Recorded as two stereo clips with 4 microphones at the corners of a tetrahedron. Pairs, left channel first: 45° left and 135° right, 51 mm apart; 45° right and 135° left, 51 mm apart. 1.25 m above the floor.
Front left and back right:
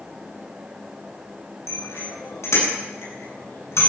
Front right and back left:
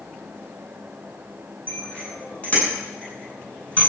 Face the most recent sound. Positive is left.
turn(degrees=20)